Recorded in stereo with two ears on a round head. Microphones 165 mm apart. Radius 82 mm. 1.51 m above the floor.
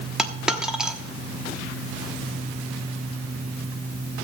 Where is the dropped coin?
5° right (ahead or behind), 1.0 m.